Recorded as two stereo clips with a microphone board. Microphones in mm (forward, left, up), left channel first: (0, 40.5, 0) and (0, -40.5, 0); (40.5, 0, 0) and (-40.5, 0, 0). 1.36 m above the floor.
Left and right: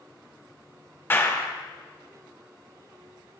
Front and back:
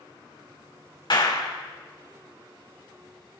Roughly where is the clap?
Ahead left.